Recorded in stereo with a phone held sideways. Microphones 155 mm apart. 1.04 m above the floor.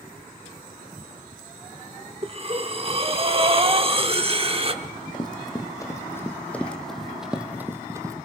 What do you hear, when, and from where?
2.2 s breathing: 35° right (ahead or behind), 1.3 m
4.8 s running footsteps: 30° left (ahead or behind), 2 m; by 8.2 s 20° right (ahead or behind), 1.5 m